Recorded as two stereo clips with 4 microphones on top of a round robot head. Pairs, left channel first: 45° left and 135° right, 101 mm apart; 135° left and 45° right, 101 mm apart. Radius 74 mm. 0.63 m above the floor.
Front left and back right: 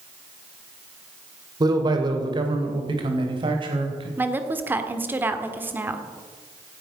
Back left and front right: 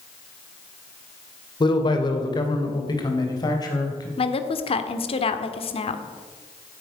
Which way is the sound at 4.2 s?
155° left.